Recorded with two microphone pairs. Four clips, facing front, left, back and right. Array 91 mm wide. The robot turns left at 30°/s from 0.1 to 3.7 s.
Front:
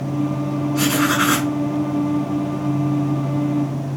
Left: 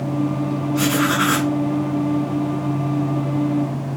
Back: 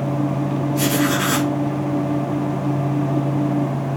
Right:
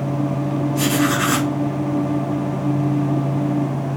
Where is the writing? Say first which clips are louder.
Left 1 dB, front 2 dB; 40° left, 3 m; by 1.5 s 15° left, 3 m.